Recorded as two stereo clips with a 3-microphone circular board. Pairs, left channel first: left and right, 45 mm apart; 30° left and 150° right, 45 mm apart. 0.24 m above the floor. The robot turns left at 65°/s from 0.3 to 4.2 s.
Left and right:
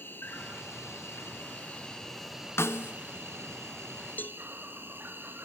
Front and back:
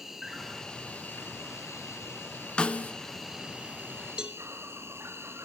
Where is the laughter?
I don't hear laughter.